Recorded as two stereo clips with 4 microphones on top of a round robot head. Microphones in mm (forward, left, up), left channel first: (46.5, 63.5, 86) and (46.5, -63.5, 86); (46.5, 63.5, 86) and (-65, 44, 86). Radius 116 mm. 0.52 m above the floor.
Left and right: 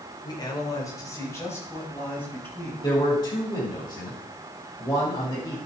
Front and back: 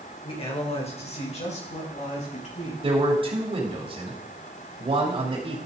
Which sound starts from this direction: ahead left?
A man speaking, at 0.2 s.